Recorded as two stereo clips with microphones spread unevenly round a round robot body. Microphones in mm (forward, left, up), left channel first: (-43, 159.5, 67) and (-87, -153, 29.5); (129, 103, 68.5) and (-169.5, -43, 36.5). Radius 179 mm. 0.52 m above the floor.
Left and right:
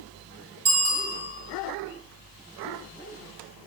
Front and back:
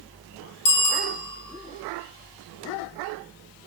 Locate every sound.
0.7 s a bicycle bell: 15° right, 3 m